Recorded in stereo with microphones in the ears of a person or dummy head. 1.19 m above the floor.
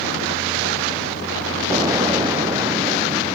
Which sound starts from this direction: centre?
An explosion, at 1.7 s.